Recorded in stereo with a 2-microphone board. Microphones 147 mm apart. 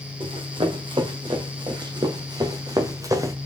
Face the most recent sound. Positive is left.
turn(degrees=-20)  # may be behind; listen again after turning